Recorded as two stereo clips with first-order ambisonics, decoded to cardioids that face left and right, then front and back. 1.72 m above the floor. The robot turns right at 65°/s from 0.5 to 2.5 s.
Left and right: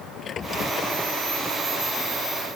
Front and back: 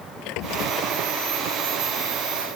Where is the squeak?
25° left; by 0.9 s 50° left.